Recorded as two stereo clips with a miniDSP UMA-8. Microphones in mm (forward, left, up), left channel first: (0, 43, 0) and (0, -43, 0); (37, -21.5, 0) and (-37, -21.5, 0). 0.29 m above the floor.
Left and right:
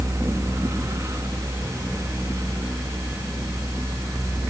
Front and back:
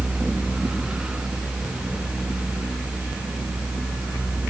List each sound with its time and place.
Only background noise.